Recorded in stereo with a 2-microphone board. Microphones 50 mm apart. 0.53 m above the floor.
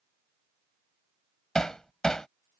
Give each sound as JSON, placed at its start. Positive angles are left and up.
{"t": 1.6, "sound": "hammering", "side_deg": 15}